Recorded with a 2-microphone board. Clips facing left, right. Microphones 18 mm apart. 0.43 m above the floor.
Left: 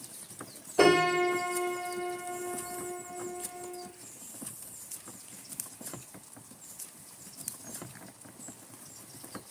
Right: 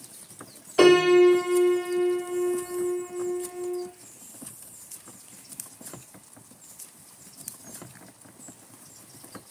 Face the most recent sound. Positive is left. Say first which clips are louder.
# right 7 dB
turn(degrees=-75)  # may be behind; listen again after turning